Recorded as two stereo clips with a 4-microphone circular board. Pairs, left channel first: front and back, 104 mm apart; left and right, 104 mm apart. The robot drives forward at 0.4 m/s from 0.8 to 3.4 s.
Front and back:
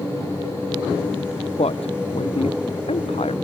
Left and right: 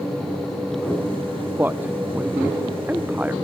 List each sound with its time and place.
1.6 s a man speaking: 15° right; by 3.3 s 20° right